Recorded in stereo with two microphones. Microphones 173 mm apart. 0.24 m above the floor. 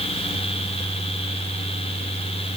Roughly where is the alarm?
I don't hear an alarm.